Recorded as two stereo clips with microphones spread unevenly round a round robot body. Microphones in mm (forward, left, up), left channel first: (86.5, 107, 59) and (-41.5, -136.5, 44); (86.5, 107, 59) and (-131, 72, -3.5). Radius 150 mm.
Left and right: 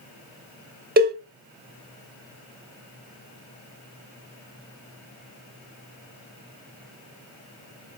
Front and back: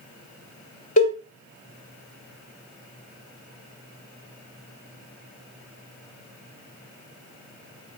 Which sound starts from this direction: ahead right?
A cowbell, at 1.0 s.